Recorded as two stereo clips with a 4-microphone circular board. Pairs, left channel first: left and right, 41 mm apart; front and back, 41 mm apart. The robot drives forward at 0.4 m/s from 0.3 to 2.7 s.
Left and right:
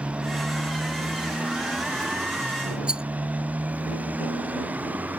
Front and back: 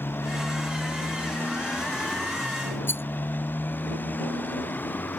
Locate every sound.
0.0 s a motorcycle: 30° right; by 5.2 s 40° right
2.9 s a rattle: 25° right